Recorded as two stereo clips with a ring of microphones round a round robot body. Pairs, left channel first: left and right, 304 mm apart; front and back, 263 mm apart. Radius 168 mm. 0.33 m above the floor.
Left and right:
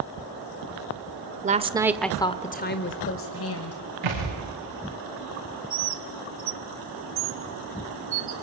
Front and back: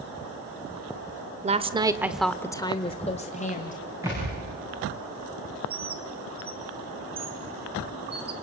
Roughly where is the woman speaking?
Behind right.